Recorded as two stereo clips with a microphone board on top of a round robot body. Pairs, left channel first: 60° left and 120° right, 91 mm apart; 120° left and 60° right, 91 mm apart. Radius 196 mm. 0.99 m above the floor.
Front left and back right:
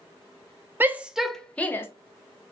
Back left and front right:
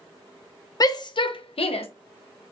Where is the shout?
170° left, 0.7 m; by 1.9 s 125° left, 0.8 m.